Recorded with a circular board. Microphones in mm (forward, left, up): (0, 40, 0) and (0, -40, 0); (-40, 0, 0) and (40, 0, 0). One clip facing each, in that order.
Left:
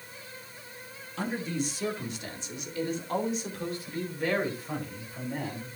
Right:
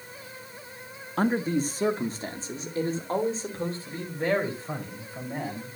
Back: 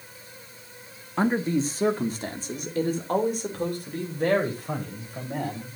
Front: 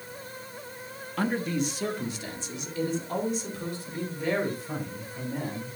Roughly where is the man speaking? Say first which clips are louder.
Right 7 dB, back 4 dB; behind right.